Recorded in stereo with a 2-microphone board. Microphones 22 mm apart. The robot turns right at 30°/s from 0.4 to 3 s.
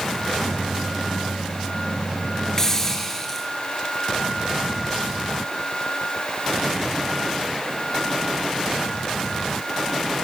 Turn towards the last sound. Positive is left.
turn(degrees=15)  # may be behind; listen again after turning